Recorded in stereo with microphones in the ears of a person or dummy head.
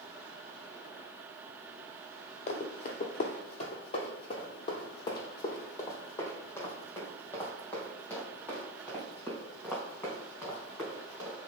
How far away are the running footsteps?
About 1.8 m.